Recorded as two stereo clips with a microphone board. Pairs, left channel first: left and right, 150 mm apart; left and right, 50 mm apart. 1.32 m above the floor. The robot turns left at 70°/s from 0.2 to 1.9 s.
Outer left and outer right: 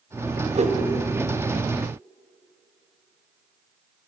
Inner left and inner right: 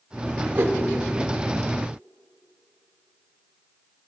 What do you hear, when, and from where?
0.6 s a whoosh: 45° right (ahead or behind), 0.8 m; by 0.8 s 50° right (ahead or behind), 0.8 m